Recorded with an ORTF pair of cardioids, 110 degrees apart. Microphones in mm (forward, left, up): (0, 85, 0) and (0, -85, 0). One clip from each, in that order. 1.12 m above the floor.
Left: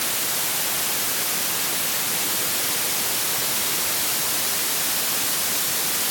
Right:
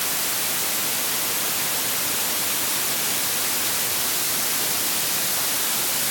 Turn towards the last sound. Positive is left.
No sound to turn to.